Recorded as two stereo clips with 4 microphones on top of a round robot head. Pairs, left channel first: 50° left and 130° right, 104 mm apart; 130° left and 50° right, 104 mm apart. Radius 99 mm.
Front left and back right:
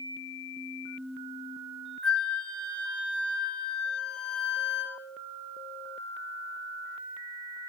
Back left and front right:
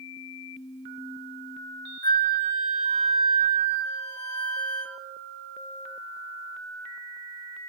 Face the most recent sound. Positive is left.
turn(degrees=130)